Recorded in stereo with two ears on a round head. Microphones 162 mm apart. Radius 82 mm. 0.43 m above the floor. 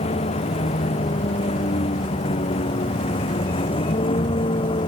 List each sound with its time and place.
0.0 s a vehicle: 35° left (ahead or behind); by 4.9 s 30° left (ahead or behind)